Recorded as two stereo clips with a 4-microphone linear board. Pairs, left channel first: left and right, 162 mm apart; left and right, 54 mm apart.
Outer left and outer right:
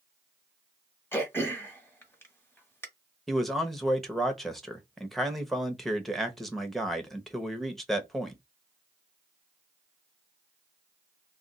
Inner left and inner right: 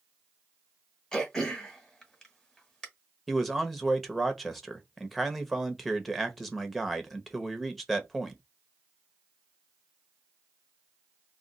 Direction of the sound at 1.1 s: 15° left (ahead or behind).